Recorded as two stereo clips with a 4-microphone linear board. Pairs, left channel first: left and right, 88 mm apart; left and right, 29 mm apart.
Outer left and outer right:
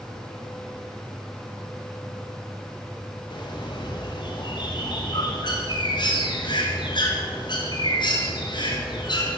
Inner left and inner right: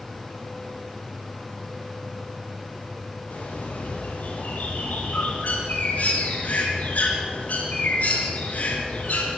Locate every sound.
3.3 s a bird: 55° left (ahead or behind), 3.5 m